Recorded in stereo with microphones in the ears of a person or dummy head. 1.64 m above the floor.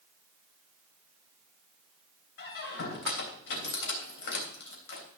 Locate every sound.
2.4 s a squeak: 60° left (ahead or behind), 3 m